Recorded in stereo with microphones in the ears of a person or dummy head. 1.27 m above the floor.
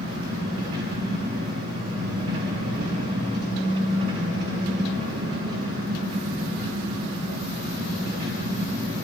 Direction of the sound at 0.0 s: 50° right (ahead or behind).